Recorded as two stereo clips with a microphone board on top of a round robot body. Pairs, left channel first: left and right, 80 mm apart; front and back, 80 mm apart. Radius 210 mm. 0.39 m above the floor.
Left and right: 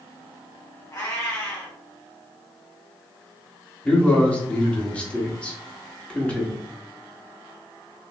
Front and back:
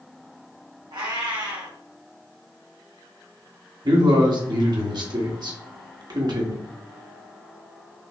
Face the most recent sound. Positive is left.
turn(degrees=165)